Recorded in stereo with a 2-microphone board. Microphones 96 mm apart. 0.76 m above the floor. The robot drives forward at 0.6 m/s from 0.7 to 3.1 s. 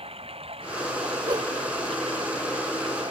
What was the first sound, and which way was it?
Running water, 90° right.